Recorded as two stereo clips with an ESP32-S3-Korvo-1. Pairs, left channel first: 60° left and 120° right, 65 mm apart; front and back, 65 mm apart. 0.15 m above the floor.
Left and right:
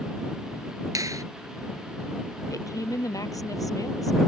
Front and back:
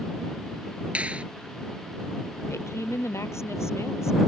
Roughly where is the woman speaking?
Ahead left.